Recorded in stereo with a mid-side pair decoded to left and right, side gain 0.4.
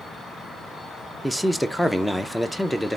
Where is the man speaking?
10° left, 0.5 m.